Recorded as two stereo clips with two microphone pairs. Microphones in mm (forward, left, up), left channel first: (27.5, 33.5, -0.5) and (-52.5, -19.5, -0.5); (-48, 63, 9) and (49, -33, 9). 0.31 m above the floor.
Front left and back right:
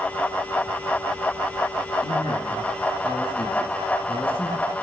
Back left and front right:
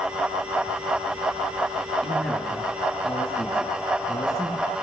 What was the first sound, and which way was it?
A man speaking, 50° left.